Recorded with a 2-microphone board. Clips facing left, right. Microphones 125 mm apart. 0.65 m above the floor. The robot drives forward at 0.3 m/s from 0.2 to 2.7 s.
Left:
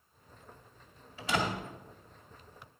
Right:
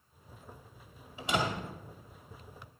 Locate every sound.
1.2 s a door slam: 20° right (ahead or behind), 1.9 m